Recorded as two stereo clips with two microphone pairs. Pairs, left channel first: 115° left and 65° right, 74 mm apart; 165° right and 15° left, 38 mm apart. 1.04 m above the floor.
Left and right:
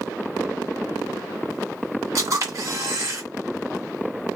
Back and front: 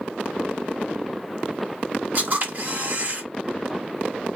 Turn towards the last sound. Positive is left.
turn(degrees=-20)